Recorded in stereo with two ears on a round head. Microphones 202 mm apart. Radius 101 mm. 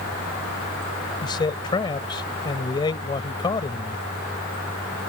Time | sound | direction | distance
1.2 | a man speaking | 20° left (ahead or behind) | ?